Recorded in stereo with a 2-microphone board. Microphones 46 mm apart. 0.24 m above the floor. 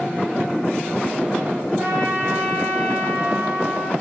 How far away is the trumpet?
About 3.5 m.